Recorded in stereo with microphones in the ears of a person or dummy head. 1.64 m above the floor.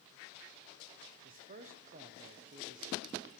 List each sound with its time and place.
1.2 s a man speaking: 40° right (ahead or behind), 0.6 m